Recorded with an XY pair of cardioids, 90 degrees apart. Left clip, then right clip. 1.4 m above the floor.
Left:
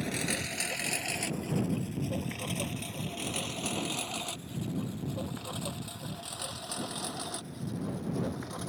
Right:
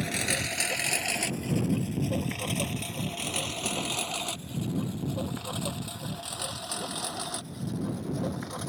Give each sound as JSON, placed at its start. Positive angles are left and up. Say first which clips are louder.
{"t": 0.0, "sound": "a lawn mower", "louder": "right 4 dB", "azimuth_deg": -40}